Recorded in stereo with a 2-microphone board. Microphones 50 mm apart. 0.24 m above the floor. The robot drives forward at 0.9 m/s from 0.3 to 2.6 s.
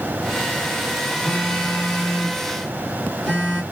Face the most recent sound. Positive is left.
turn(degrees=10)  # may be behind; listen again after turning